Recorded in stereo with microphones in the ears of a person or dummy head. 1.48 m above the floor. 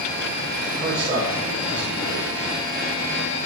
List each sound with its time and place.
0.7 s a man speaking: 45° right (ahead or behind), 8.5 m